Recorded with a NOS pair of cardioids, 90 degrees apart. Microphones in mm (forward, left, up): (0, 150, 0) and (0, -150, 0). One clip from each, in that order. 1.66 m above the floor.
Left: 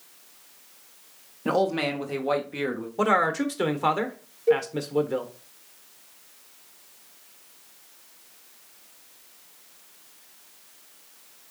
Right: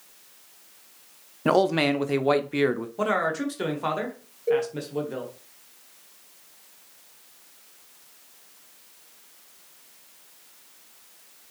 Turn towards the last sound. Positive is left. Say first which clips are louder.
# left 2 dB
turn(degrees=30)